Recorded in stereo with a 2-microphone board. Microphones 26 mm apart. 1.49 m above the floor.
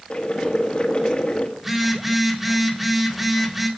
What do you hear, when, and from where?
0.1 s boiling: 40° left (ahead or behind), 1.8 m
1.6 s a phone buzzing: 10° right (ahead or behind), 2 m